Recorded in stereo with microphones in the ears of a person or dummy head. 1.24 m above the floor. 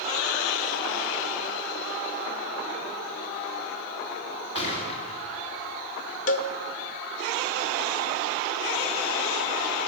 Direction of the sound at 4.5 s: 35° left (ahead or behind).